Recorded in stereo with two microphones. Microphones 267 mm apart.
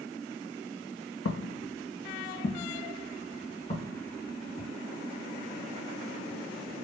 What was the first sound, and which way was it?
Footsteps, 65° left (ahead or behind).